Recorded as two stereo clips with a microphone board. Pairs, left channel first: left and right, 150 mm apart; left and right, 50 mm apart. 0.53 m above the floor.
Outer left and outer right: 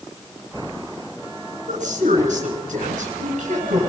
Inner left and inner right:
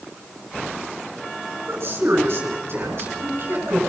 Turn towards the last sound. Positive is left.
turn(degrees=-50)  # may be behind; listen again after turning